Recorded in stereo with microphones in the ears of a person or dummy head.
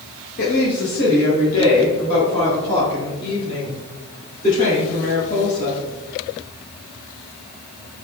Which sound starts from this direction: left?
A woman speaking, at 0.4 s.